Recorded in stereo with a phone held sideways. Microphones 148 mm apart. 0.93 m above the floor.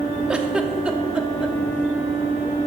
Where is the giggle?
5° right (ahead or behind), 0.7 m.